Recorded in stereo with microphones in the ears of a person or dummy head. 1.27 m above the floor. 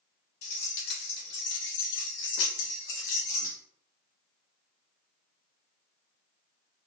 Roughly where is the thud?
I don't hear a thud.